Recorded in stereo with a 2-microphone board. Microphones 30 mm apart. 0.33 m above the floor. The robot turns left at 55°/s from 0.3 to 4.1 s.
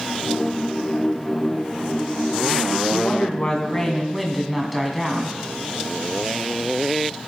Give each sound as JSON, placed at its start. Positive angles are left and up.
{"t": 2.9, "sound": "a woman speaking", "azimuth_deg": 60, "distance_m": 2.5}